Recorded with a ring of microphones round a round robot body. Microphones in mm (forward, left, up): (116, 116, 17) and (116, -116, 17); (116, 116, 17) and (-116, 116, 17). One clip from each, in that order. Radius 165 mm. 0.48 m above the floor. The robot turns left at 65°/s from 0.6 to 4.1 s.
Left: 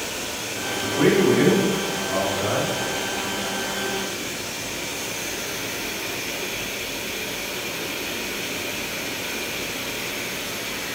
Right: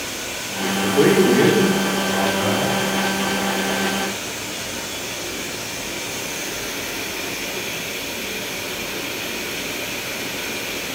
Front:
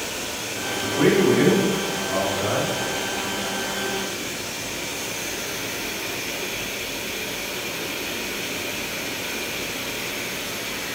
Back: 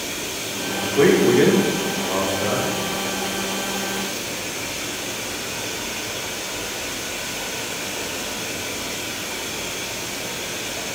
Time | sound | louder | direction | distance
0.8 | a man speaking | right 3 dB, back 3 dB | 165° right | 1.0 m